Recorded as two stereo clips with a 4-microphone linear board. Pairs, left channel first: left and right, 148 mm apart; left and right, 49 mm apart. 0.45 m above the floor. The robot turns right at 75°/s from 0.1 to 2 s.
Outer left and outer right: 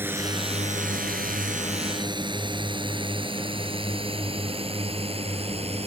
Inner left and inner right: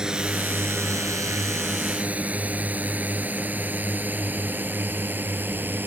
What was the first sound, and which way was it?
A drone, 15° right (ahead or behind).